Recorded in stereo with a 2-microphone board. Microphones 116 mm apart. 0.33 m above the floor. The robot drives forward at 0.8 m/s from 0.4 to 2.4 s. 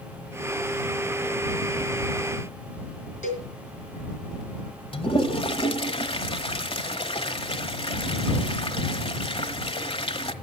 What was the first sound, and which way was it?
A cowbell, 75° left (ahead or behind).